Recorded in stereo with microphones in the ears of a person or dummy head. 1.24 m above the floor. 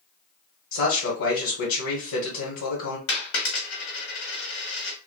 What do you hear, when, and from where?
0.7 s a man speaking: 55° left (ahead or behind), 1.1 m
3.1 s a dropped coin: 65° left (ahead or behind), 1.1 m